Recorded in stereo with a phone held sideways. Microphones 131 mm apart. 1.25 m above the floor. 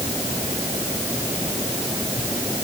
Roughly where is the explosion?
I don't hear an explosion.